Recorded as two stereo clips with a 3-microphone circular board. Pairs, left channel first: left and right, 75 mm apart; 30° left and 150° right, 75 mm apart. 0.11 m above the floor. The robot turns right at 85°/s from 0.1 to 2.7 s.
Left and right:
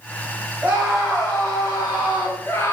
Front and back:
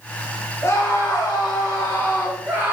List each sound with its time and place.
0.6 s a scream: 25° right, 7.5 m; by 2.7 s 150° left, 7.5 m